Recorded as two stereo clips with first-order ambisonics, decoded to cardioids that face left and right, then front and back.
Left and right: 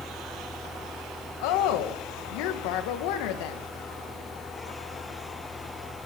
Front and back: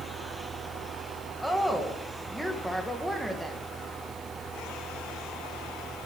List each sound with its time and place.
1.4 s a woman speaking: 90° left, 2 m